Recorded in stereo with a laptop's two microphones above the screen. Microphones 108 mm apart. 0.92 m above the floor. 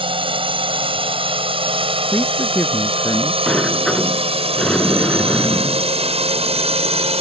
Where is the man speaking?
20° left (ahead or behind).